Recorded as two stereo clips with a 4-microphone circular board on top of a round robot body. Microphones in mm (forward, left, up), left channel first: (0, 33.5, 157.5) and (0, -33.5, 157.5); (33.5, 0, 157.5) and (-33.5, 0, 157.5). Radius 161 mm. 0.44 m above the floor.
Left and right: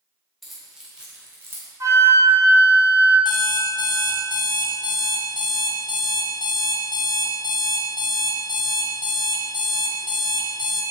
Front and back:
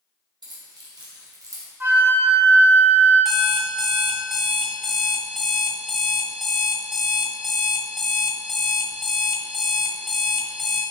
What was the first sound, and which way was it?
Keys jangling, straight behind.